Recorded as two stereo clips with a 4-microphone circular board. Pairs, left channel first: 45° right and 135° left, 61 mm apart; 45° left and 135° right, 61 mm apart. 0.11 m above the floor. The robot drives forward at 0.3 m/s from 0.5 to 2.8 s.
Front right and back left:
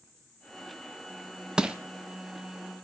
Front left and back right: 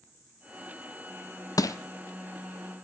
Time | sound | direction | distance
1.6 | crushing | 60° left | 0.6 m